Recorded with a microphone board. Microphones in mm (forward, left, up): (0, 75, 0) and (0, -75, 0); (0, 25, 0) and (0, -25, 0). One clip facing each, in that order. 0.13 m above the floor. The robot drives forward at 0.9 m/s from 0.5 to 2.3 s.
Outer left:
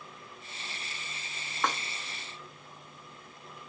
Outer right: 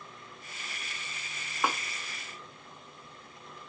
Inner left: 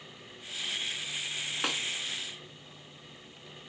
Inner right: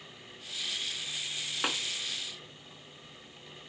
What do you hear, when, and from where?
1.6 s a snare drum: 10° right (ahead or behind), 0.7 m; by 1.8 s 5° right (ahead or behind), 0.8 m